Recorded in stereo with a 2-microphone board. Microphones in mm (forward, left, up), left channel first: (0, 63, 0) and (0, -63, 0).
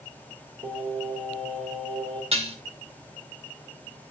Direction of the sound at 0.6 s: 50° right (ahead or behind).